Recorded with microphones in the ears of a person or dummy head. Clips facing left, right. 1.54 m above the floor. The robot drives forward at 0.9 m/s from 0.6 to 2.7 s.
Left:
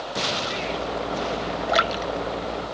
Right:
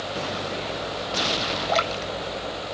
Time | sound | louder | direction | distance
1.7 | a splash | left 2 dB | 15° left (ahead or behind) | ?